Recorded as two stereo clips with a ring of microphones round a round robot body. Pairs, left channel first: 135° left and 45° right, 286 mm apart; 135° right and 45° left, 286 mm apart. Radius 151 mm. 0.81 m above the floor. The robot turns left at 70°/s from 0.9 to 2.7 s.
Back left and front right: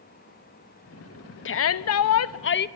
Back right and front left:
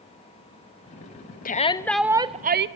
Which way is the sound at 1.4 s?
170° left.